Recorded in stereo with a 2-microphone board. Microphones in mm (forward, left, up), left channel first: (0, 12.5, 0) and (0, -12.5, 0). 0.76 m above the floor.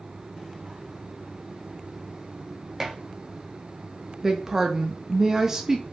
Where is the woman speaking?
15° right (ahead or behind), 0.5 m.